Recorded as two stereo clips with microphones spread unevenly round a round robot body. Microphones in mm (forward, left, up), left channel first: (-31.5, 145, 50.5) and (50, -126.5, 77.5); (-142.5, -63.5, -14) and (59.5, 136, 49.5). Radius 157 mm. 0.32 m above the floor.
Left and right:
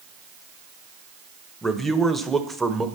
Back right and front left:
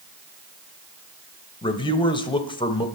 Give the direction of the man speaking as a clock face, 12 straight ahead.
6 o'clock.